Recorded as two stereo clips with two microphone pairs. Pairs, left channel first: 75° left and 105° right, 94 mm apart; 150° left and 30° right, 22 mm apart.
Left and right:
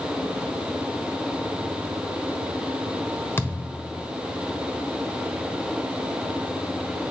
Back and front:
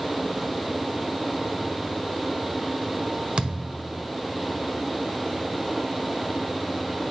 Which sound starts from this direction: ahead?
A thud, at 3.4 s.